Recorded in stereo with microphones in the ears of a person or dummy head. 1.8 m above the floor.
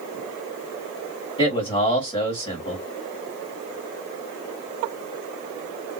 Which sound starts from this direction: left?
A man speaking, at 1.4 s.